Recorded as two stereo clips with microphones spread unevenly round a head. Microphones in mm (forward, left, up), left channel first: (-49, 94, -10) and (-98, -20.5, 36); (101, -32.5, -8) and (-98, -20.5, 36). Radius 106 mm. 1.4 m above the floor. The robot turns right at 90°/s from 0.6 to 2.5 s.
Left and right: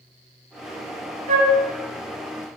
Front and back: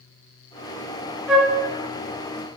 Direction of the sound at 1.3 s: 100° right.